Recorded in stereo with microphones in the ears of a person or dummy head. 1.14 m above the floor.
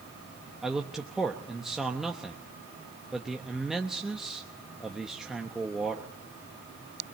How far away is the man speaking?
About 1.1 m.